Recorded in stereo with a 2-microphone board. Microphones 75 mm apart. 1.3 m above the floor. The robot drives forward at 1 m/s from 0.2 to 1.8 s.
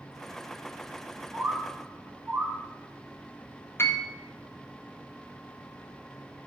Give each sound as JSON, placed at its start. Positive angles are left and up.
{"t": 1.3, "sound": "a bird", "side_deg": -30, "distance_m": 2.5}
{"t": 3.8, "sound": "a piano", "side_deg": 35, "distance_m": 1.3}